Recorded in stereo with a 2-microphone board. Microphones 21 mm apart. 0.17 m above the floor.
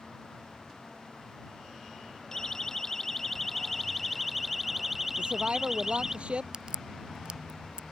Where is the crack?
40° right (ahead or behind).